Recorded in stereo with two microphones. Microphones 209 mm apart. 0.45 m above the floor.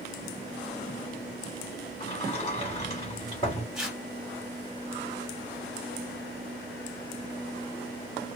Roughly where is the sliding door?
Left.